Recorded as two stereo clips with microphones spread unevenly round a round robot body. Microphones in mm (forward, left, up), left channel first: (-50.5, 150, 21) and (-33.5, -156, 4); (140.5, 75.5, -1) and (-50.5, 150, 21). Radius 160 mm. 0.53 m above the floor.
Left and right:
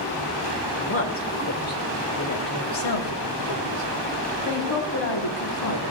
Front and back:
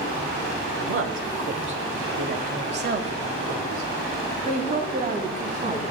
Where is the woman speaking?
145° left, 1.9 m; by 5.9 s 105° left, 3.5 m.